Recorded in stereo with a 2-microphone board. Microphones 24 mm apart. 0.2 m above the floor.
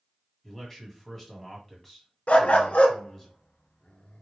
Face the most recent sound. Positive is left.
turn(degrees=60)  # may be behind; listen again after turning